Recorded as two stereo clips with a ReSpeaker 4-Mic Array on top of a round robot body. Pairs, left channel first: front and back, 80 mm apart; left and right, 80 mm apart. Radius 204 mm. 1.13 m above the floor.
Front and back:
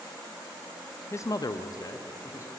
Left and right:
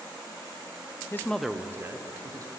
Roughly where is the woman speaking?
Ahead left.